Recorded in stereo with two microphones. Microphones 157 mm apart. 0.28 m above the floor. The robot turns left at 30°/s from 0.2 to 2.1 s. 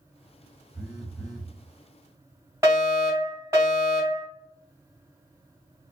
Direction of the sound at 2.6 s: 20° right (ahead or behind).